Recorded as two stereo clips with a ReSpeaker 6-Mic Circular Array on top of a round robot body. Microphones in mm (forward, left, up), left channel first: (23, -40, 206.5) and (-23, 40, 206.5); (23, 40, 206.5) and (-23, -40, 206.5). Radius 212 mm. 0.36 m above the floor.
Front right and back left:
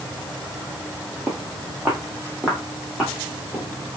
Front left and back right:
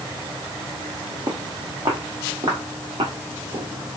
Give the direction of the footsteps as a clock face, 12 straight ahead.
6 o'clock.